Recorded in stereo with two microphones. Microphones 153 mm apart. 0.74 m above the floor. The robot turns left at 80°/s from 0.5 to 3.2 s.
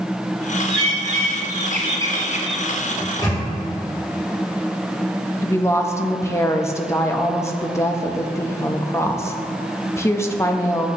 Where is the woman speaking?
20° left (ahead or behind), 0.5 m.